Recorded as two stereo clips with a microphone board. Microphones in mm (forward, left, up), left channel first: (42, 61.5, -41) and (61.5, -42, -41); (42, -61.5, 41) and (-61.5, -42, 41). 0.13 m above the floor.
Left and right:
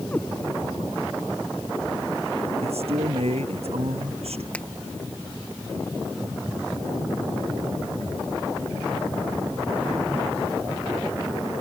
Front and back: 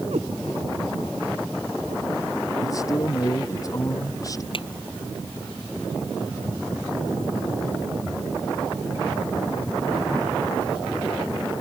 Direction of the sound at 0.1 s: 175° left.